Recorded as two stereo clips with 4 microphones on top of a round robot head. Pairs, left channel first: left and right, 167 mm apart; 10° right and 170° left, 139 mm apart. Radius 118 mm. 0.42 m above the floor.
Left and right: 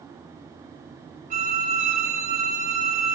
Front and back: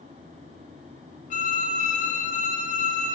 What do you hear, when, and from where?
1.3 s a violin: 40° right, 1.4 m